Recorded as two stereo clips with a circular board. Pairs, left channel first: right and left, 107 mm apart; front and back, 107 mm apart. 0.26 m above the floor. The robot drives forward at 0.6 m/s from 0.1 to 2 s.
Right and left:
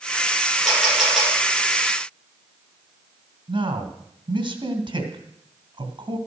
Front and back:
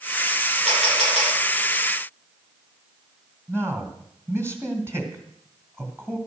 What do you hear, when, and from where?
0.7 s a camera shutter: 175° left, 6.5 m
3.5 s a man speaking: 120° left, 2.5 m